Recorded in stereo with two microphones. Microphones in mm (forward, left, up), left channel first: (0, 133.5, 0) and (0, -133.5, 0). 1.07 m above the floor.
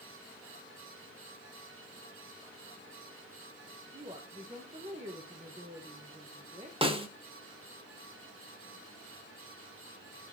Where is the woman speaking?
25° right (ahead or behind), 1.1 m.